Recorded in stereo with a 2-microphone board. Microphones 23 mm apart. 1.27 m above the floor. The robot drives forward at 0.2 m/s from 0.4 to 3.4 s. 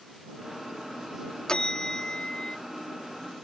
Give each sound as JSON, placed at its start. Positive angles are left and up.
{"t": 1.5, "sound": "a bell", "side_deg": 35}